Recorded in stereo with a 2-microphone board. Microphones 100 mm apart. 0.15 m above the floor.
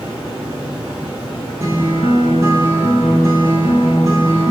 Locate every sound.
0.0 s running water: 15° right (ahead or behind), 1.7 m
1.6 s a guitar: 35° right (ahead or behind), 1.0 m